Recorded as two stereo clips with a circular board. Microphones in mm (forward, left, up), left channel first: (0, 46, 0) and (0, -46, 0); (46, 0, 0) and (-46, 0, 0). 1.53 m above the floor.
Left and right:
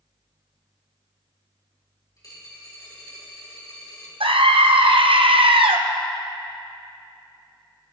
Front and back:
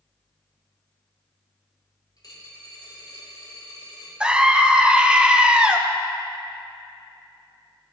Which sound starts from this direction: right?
A scream, at 4.2 s.